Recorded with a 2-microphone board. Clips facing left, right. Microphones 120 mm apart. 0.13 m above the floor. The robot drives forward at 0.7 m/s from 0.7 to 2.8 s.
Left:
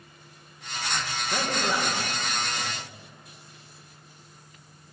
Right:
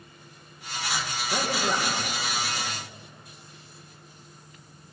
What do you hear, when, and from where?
1.3 s a man speaking: 15° right (ahead or behind), 7.5 m